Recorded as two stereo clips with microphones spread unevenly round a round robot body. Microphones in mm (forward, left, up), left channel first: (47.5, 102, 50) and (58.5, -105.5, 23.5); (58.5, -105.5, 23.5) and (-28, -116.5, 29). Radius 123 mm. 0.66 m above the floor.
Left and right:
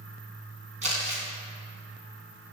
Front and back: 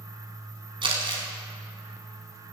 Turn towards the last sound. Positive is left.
turn(degrees=-150)